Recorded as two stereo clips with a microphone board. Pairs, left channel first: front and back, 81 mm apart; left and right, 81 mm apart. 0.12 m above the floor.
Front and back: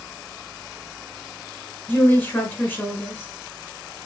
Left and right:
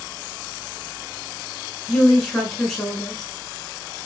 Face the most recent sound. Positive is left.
turn(degrees=5)